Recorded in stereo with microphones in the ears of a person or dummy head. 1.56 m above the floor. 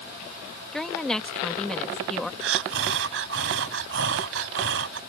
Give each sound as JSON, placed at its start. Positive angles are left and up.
{"t": 0.7, "sound": "a woman speaking", "side_deg": 0}
{"t": 2.4, "sound": "breathing", "side_deg": -70}